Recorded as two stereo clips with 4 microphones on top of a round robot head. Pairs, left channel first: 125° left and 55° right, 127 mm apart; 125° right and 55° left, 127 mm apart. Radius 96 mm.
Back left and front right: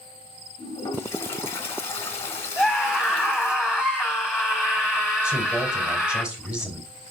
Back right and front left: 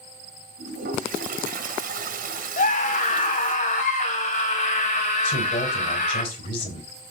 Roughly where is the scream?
Behind right.